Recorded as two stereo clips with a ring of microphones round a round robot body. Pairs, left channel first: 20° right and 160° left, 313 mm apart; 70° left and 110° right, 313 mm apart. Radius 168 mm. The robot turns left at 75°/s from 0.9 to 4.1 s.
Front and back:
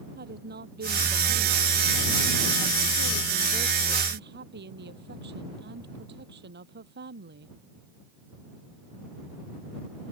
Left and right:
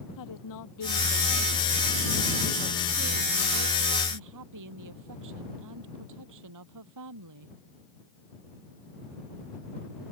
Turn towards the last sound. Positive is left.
turn(degrees=-145)